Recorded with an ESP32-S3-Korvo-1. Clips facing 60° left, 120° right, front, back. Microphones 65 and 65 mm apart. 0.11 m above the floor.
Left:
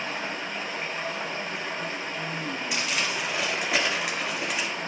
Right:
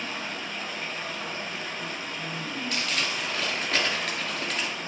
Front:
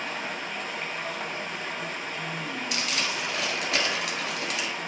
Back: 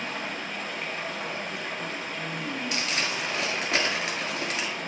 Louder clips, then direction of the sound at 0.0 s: Left 2 dB, even; 85° left.